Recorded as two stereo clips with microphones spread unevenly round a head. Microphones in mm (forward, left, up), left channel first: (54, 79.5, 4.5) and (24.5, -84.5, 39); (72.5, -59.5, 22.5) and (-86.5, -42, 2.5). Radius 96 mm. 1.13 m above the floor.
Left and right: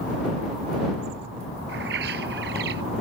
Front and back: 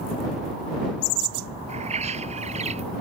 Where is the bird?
135° right.